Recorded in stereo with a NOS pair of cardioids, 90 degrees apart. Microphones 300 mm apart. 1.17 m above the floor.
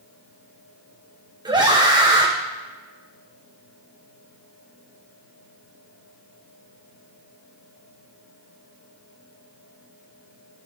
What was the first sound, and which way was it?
A scream, 15° right.